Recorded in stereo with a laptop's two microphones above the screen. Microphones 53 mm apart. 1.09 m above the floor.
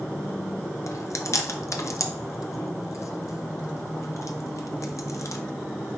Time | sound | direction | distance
0.9 | chewing | 70° left (ahead or behind) | 0.7 m